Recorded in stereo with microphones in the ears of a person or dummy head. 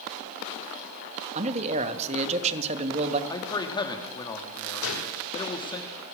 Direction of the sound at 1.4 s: 30° right (ahead or behind).